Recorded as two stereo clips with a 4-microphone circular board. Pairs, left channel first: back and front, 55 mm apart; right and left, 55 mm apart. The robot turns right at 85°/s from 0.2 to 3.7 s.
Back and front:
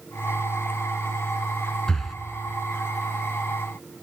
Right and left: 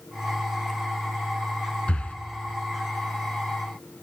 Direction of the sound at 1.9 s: 110° right.